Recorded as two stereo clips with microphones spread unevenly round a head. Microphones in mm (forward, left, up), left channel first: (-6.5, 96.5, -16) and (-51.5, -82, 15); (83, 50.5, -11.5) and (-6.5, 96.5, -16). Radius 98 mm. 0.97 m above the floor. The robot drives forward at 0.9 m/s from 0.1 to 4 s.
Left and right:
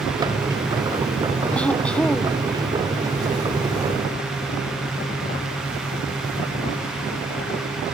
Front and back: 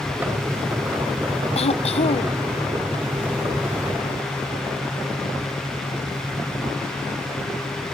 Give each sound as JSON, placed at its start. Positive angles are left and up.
{"t": 1.6, "sound": "throat clearing", "azimuth_deg": -10}